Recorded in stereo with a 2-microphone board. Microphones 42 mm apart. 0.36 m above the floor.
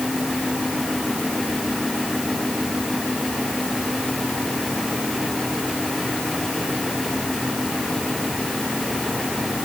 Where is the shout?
No shout in this recording.